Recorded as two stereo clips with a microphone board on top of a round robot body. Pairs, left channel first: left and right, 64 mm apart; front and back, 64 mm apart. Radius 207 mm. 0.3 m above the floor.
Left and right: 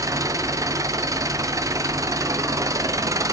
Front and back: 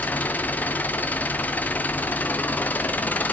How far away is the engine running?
About 0.9 m.